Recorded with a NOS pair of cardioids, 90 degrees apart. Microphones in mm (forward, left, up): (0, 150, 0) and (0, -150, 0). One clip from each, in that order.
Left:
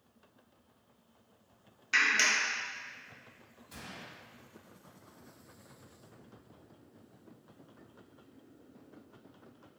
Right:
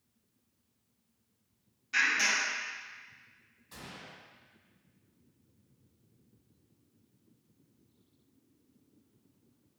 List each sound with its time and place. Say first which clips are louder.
1.9 s a clap: left 1 dB; 55° left, 1.1 m
3.7 s a gunshot: even; 5° left, 1.9 m